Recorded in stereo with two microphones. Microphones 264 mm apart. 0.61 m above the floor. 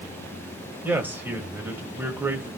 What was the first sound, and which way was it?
A man speaking, 5° right (ahead or behind).